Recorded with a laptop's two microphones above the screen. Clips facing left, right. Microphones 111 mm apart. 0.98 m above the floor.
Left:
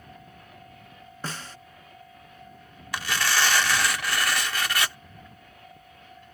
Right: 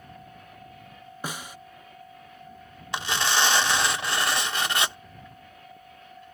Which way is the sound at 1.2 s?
15° right (ahead or behind).